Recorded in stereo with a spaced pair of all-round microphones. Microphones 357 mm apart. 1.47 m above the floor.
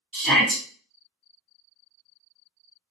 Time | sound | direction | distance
0.1 | a shout | 70° right (ahead or behind) | 1.6 m